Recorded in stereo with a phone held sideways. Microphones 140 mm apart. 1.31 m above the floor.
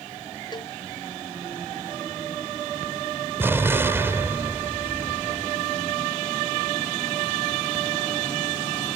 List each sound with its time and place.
0.5 s a cowbell: 30° left (ahead or behind)
3.4 s an explosion: 15° right (ahead or behind)